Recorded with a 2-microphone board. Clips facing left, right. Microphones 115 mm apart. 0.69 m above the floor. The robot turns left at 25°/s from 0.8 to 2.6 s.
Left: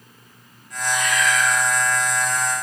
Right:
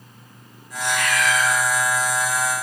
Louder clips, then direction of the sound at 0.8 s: Even; 70° right (ahead or behind).